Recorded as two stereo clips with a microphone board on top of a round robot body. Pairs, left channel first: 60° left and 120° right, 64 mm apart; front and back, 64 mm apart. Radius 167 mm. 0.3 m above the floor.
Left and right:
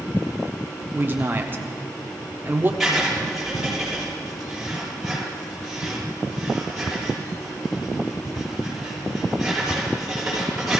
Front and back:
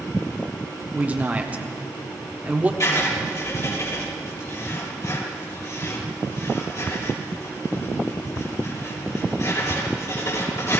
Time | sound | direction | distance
0.9 | a man speaking | 135° right | 1.6 m
2.8 | writing | 35° right | 6.5 m